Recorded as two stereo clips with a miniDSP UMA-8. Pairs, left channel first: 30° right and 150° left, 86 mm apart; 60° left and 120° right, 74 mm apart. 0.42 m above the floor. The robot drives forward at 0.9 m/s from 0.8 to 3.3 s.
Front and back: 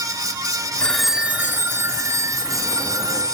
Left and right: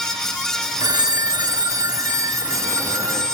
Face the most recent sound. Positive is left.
turn(degrees=-165)